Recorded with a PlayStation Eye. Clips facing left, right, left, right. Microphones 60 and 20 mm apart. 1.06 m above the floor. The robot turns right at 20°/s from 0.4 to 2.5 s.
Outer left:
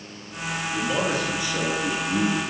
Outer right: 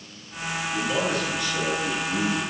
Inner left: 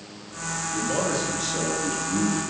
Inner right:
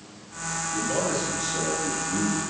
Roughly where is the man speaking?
Ahead.